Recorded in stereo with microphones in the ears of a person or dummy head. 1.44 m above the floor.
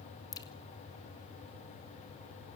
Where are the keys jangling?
No keys jangling in this recording.